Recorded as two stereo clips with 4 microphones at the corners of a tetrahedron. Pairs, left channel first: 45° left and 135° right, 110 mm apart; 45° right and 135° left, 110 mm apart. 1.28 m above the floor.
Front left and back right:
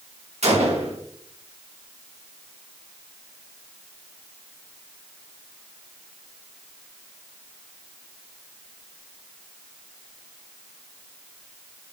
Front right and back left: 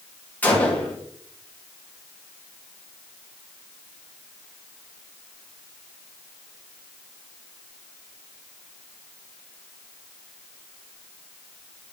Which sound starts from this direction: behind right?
A gunshot, at 0.4 s.